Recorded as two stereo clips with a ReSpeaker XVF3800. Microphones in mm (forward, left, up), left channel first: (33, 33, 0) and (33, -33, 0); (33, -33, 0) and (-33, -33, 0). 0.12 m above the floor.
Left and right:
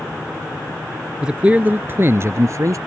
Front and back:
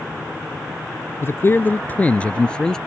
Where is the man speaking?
20° right; by 2.8 s 80° right.